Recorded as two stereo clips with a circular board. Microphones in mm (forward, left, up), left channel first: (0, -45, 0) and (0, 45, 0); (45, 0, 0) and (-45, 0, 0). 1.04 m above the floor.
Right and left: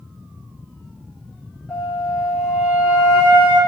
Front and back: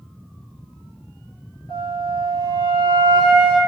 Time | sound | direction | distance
1.7 | a flute | 10° left | 4.5 m